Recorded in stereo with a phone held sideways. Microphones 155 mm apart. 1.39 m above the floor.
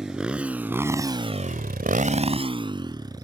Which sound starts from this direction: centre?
A motorcycle, at 0.0 s.